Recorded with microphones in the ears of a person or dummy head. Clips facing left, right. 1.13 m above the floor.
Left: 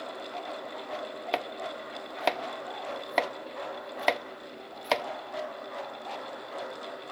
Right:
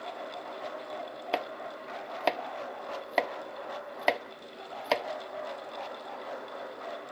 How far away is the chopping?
About 0.7 m.